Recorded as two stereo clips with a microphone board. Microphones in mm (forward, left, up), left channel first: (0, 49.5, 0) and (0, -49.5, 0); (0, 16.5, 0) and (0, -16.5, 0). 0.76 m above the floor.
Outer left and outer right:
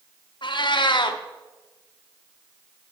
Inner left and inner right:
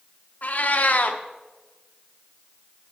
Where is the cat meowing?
50° left (ahead or behind), 0.7 m.